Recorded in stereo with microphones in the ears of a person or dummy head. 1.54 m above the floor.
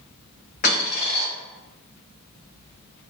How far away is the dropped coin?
About 1.6 m.